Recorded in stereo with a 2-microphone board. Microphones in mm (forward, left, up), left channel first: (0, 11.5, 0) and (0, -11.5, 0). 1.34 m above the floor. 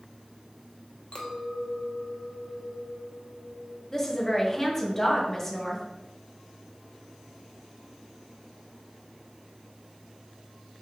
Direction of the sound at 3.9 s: 20° left (ahead or behind).